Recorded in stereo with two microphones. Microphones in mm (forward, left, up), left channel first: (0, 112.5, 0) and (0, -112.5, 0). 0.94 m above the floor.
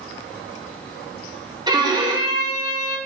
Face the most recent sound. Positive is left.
turn(degrees=-20)  # may be behind; listen again after turning